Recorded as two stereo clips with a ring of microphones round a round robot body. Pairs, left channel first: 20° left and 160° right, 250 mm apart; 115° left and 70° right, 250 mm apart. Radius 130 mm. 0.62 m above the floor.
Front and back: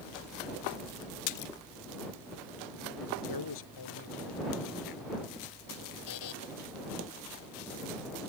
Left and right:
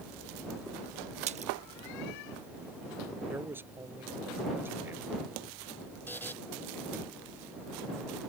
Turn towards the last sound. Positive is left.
turn(degrees=30)